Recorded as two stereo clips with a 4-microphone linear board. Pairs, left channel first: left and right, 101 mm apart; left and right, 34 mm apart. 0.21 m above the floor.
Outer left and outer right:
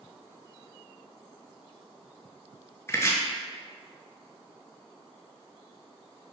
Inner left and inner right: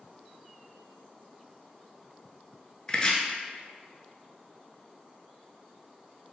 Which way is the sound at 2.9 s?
25° left (ahead or behind).